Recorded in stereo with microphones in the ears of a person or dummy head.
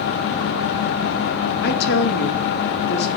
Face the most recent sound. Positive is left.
turn(degrees=60)  # may be behind; listen again after turning